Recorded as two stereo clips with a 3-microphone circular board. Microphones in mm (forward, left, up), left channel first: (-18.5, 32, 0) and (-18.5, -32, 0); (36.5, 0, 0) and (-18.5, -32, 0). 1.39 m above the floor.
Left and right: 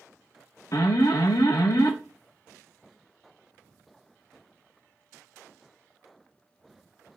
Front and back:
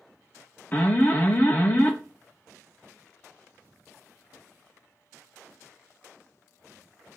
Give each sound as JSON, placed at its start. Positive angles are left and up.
{"t": 0.7, "sound": "an alarm", "azimuth_deg": 85, "distance_m": 0.6}